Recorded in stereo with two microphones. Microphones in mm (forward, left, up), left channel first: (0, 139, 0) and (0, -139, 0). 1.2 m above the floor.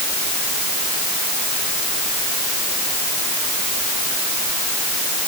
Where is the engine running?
I don't hear an engine running.